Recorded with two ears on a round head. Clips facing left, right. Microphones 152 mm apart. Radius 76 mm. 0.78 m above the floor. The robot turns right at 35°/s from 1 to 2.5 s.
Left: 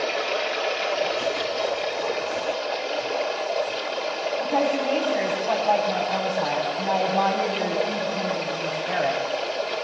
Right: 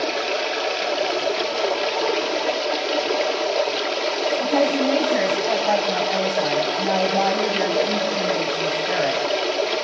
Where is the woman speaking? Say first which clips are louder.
Right 3 dB; 20° right (ahead or behind), 6.5 m.